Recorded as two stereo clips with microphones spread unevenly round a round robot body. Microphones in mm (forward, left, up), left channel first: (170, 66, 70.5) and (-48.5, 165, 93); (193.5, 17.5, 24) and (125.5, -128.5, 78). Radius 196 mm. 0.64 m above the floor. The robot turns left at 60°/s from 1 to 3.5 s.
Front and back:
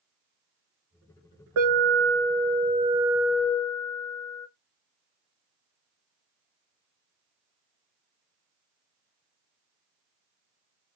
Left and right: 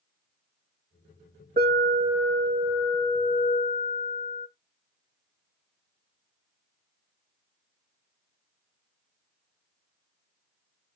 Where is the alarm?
175° left, 5.5 m; by 4.5 s 55° left, 5.5 m.